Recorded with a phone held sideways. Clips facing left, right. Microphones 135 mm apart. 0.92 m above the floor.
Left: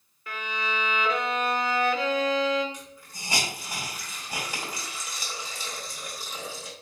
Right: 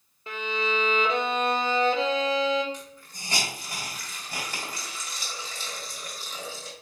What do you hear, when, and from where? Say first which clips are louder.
0.3 s a violin: right 4 dB; 25° right (ahead or behind), 0.6 m
2.7 s a hiss: right 1 dB; 10° left (ahead or behind), 1.9 m